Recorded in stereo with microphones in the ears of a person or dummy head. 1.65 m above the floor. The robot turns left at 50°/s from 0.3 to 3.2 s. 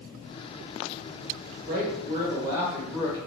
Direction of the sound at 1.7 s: 120° right.